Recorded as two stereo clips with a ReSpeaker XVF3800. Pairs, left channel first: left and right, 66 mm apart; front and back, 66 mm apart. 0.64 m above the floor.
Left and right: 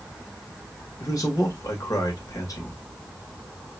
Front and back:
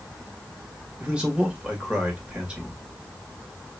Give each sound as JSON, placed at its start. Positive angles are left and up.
{"t": 1.0, "sound": "a man speaking", "azimuth_deg": 105, "distance_m": 1.8}